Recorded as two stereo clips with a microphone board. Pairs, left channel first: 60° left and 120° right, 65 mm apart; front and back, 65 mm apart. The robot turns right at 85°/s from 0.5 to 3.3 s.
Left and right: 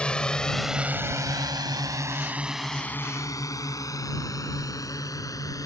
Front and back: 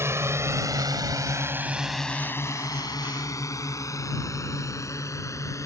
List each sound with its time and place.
0.0 s a drone: 135° left; by 5.7 s 35° left